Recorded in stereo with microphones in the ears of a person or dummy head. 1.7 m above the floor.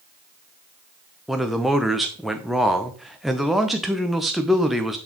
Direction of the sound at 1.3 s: Centre (ahead or behind).